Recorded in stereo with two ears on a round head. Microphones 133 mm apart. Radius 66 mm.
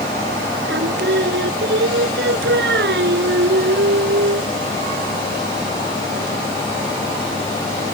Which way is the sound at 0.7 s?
75° right (ahead or behind).